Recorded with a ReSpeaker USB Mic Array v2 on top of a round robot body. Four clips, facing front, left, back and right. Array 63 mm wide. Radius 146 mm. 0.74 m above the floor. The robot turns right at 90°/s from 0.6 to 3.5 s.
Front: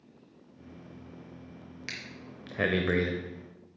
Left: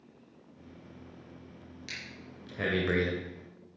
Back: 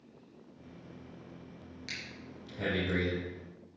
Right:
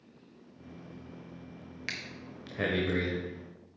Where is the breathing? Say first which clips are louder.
Right 4 dB, front 2 dB; 70° right, 0.7 m; by 3.1 s 40° left, 0.7 m.